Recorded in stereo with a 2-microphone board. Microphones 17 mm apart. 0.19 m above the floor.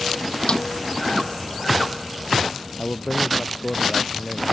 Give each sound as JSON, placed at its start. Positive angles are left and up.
{"t": 0.5, "sound": "a snare drum", "side_deg": 50}
{"t": 2.8, "sound": "a man speaking", "side_deg": 75}